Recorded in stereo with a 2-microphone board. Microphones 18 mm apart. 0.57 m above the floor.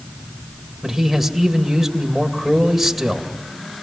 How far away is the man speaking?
About 2.5 m.